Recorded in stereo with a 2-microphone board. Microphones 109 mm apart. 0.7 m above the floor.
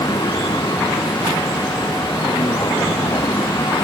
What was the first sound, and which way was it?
A vehicle, 40° left (ahead or behind).